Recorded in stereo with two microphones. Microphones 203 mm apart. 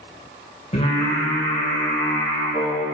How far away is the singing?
About 3.5 m.